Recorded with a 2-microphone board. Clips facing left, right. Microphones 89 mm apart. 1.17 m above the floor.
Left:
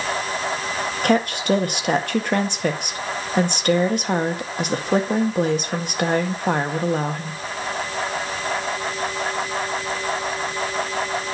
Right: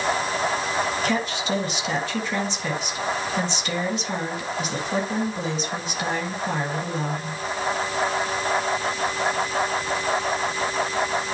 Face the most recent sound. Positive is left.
turn(degrees=60)  # may be behind; listen again after turning